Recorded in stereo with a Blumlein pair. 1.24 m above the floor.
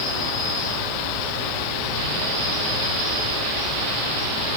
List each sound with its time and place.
0.0 s an insect: 40° left, 1.2 m